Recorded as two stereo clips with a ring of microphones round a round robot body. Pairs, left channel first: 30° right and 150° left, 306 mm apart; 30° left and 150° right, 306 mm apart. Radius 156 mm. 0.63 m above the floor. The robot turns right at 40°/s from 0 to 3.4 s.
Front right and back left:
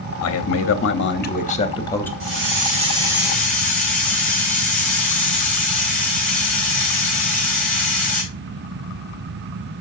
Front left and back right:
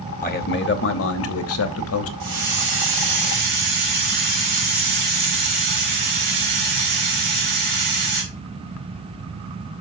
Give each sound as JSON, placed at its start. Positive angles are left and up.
{"t": 0.2, "sound": "a man speaking", "azimuth_deg": -25, "distance_m": 1.1}
{"t": 2.2, "sound": "a hiss", "azimuth_deg": -165, "distance_m": 4.0}